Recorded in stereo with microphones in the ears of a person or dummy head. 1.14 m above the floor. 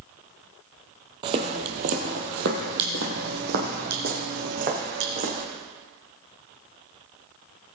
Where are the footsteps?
25° right (ahead or behind), 1.5 m; by 5.4 s 40° right (ahead or behind), 3 m.